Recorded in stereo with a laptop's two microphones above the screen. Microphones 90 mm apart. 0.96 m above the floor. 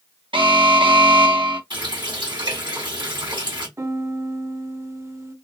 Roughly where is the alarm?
Right.